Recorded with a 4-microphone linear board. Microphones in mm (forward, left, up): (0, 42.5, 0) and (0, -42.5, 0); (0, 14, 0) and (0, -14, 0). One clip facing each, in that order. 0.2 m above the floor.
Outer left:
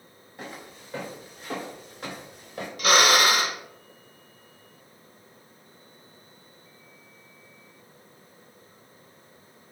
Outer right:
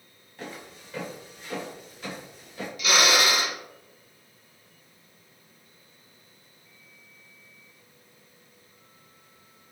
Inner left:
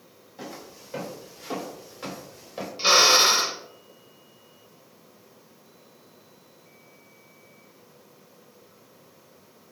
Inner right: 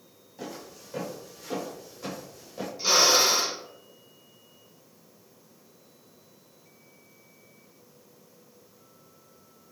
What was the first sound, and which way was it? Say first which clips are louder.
Footsteps: even, even; 20° left (ahead or behind).